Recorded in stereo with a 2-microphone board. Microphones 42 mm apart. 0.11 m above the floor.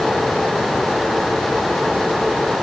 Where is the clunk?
I don't hear a clunk.